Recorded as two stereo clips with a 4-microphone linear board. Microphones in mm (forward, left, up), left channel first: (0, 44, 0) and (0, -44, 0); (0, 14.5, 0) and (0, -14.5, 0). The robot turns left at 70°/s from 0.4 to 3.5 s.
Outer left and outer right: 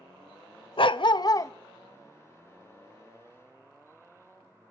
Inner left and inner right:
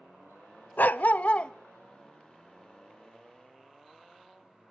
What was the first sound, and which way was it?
A dog barking, 85° left.